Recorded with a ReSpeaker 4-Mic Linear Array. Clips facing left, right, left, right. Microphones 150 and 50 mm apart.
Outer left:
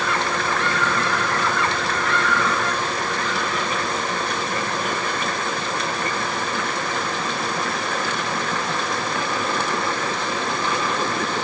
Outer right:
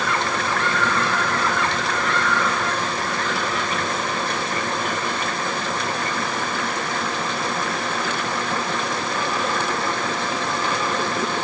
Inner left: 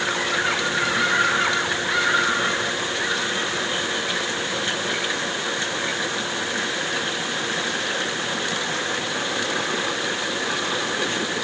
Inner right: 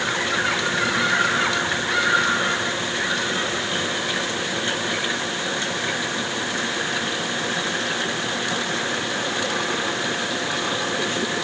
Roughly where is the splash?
No splash in this recording.